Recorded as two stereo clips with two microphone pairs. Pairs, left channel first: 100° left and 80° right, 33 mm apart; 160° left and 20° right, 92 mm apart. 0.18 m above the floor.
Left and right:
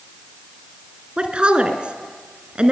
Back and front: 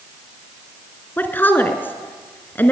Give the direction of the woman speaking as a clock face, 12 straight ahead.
4 o'clock.